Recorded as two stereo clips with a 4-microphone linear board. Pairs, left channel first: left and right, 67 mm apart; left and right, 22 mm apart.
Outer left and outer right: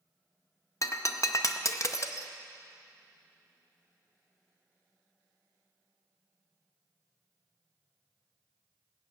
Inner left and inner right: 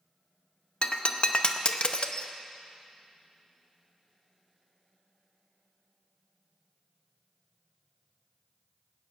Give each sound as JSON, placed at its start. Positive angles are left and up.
{"t": 0.8, "sound": "breaking glass", "side_deg": 50, "distance_m": 0.7}